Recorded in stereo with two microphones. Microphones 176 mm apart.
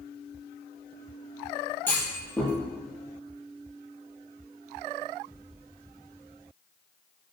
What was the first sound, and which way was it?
A clunk, 10° left (ahead or behind).